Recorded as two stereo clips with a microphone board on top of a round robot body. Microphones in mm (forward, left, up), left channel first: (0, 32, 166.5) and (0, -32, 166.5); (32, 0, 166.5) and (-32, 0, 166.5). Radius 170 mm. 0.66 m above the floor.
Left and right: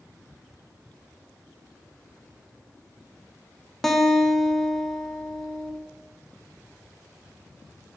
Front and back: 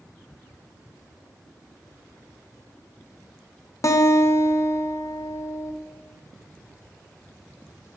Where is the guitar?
5° left, 0.7 m.